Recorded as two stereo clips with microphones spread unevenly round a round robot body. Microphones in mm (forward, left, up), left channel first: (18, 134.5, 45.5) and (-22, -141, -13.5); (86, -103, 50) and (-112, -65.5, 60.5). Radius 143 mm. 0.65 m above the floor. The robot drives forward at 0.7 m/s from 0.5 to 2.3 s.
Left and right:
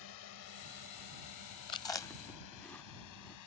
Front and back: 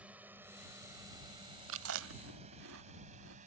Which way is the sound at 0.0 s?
85° left.